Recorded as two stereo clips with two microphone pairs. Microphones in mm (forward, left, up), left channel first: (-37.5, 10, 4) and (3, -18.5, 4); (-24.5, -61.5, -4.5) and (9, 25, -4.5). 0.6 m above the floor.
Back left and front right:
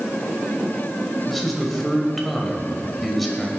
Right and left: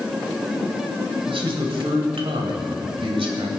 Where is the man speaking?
55° left, 2.5 m.